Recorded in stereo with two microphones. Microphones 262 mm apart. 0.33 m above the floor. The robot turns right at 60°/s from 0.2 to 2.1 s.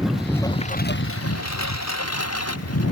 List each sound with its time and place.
0.0 s a lawn mower: straight ahead; by 2.9 s 115° left